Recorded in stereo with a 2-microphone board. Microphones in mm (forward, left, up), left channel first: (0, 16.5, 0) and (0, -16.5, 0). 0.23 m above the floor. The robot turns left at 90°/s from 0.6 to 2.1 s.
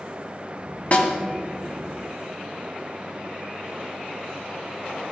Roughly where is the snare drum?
Left.